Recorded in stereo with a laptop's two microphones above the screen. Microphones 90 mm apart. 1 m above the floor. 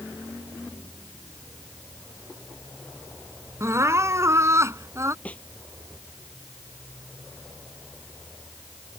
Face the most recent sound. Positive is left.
turn(degrees=15)  # may be behind; listen again after turning